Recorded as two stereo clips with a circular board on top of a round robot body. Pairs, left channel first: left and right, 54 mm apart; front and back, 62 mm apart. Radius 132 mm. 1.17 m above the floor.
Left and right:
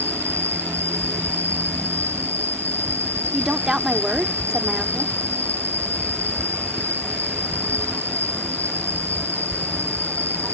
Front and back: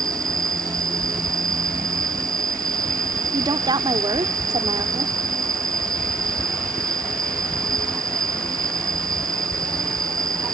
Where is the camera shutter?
I don't hear a camera shutter.